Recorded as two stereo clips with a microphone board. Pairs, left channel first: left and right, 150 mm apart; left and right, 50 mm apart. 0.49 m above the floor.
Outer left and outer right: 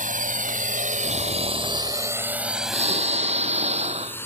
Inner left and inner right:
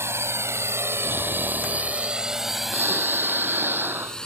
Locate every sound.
0.0 s a drone: 60° right (ahead or behind); by 4.3 s 15° left (ahead or behind)
1.0 s snoring: 45° right (ahead or behind)